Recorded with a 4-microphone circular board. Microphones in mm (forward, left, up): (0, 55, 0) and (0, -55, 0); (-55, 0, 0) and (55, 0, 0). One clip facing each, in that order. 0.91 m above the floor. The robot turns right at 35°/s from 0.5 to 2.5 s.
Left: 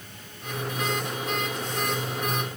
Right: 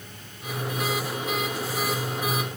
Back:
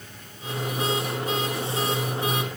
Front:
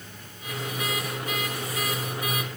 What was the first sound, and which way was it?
Only background noise.